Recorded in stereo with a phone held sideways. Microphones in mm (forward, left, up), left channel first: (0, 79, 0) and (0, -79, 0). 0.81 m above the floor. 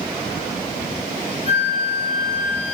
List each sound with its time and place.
1.5 s a flute: 45° left (ahead or behind), 2 m